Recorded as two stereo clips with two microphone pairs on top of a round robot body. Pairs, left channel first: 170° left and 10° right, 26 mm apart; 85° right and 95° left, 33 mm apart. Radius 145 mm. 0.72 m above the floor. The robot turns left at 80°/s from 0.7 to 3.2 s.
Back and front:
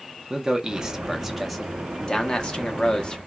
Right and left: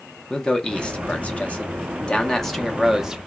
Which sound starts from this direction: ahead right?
A man speaking, at 0.3 s.